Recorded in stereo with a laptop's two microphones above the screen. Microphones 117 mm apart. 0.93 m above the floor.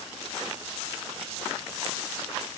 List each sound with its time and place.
Only background noise.